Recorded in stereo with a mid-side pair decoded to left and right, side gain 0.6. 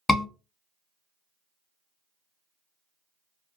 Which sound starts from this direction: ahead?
A scream, at 0.1 s.